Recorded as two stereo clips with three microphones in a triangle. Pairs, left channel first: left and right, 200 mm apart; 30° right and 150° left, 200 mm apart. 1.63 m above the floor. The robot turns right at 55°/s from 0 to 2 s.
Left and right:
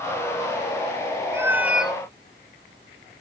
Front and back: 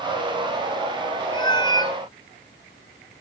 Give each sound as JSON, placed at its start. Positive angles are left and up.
{"t": 1.3, "sound": "a cat meowing", "azimuth_deg": -35, "distance_m": 1.1}